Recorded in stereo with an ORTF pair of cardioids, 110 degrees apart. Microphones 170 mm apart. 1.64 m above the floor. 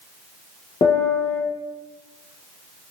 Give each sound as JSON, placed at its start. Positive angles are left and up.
{"t": 0.8, "sound": "a piano", "azimuth_deg": 35, "distance_m": 1.0}